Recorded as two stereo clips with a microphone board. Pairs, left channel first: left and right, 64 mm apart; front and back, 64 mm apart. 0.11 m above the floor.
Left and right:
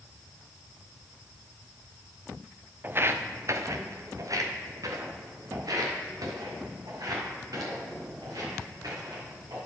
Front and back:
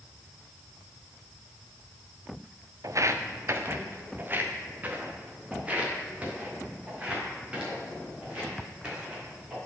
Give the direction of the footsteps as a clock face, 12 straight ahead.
5 o'clock.